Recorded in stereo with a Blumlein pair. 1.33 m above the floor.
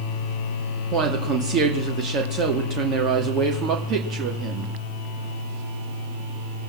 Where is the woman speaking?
30° right, 2 m.